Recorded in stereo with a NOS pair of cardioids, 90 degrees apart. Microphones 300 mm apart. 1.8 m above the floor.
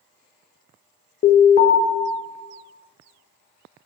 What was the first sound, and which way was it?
An alarm, 35° left.